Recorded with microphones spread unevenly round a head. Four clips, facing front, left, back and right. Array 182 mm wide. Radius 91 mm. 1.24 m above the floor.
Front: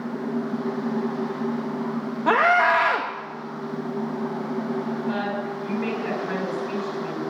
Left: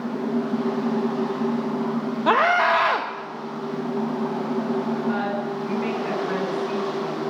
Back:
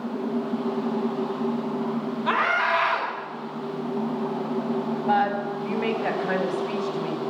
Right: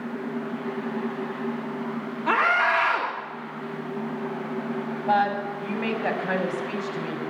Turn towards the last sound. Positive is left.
turn(degrees=-145)